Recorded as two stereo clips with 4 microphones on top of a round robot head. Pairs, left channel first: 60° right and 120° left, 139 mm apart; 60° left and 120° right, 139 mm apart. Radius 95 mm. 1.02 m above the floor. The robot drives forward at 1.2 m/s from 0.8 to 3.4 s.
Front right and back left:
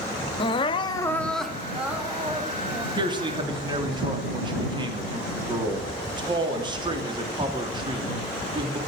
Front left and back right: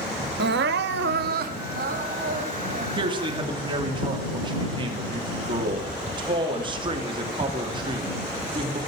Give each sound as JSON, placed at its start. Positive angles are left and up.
{"t": 0.4, "sound": "crying", "azimuth_deg": -115, "distance_m": 0.9}
{"t": 3.0, "sound": "a man speaking", "azimuth_deg": 180, "distance_m": 2.0}